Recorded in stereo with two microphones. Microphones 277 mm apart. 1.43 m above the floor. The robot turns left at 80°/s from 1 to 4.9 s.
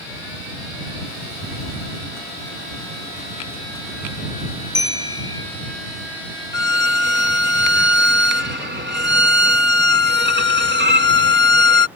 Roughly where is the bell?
Left.